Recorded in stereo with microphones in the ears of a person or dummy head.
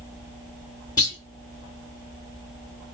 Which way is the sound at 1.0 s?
20° left (ahead or behind).